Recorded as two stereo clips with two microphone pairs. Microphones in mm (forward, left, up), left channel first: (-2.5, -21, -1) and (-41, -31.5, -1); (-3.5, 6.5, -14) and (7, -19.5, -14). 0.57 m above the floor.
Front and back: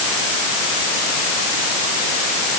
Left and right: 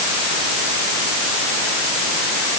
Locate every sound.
Only background noise.